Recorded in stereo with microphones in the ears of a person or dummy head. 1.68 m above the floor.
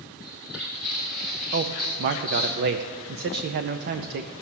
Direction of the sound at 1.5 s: 55° right (ahead or behind).